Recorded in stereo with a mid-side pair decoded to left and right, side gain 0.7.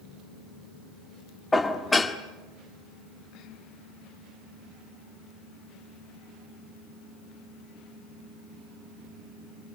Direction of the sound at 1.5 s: 10° left.